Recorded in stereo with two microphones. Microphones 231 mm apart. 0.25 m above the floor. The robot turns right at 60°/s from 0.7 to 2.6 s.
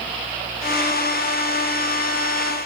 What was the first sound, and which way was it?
Only background noise.